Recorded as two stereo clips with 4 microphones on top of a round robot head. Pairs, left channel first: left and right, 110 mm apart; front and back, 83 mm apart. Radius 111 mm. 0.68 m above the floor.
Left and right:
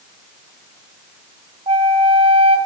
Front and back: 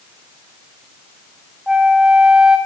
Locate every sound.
1.7 s a flute: 100° right, 0.9 m